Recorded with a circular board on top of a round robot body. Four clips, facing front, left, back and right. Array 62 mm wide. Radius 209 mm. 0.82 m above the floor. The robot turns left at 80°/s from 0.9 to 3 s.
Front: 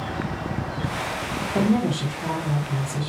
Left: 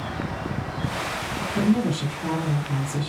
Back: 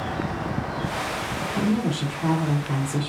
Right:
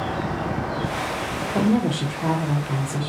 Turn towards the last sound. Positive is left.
turn(degrees=-170)